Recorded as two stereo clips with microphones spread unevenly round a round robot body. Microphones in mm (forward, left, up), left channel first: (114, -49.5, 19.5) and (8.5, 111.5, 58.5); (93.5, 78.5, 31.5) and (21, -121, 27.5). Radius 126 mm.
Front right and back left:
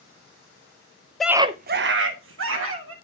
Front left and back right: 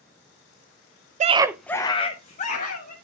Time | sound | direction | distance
1.2 | a scream | 125° right | 0.5 m